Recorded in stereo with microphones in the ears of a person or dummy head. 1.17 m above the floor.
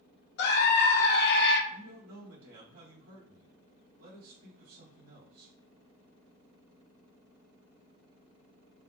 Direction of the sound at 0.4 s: 55° left (ahead or behind).